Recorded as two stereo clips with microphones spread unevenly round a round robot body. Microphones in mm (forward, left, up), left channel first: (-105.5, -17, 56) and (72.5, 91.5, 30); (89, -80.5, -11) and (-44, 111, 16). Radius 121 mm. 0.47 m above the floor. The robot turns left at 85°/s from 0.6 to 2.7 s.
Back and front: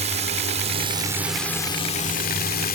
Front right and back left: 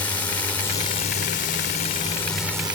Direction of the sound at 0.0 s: 15° left.